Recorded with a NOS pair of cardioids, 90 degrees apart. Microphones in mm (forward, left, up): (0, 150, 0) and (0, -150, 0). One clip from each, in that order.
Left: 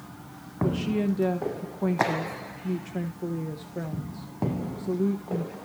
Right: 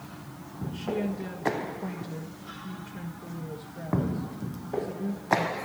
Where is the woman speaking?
65° left, 1.4 m.